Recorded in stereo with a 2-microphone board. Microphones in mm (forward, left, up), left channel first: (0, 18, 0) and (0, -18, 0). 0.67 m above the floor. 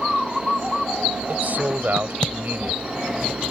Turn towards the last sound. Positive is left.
turn(degrees=-55)  # may be behind; listen again after turning